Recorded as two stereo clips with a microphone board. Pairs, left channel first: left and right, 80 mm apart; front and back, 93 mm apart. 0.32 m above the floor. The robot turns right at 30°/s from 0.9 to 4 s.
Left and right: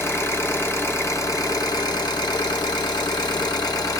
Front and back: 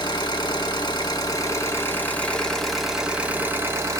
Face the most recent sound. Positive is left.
turn(degrees=130)